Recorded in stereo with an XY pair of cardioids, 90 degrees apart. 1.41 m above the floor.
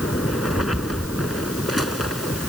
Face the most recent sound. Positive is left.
No sound to turn to.